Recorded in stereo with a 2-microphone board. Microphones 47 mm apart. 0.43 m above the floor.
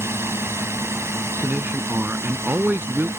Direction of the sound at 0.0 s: 65° right (ahead or behind).